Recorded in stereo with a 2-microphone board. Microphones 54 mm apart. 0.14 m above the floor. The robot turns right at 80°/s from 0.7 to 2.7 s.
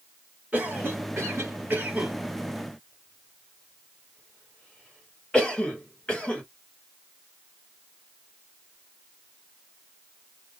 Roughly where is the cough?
Right.